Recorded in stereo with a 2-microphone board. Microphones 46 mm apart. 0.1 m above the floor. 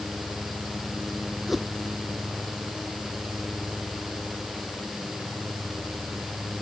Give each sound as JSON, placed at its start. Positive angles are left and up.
{"t": 1.5, "sound": "a whoosh", "side_deg": 0}